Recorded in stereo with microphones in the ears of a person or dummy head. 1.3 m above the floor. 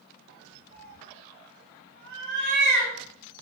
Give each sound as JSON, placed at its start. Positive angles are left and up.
{"t": 0.7, "sound": "a cat meowing", "side_deg": -65, "distance_m": 1.4}